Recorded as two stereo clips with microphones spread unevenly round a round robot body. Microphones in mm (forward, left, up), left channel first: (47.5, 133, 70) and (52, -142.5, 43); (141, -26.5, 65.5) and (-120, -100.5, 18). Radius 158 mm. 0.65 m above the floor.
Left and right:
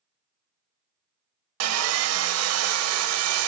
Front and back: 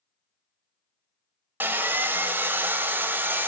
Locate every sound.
1.6 s sawing: 75° right, 0.5 m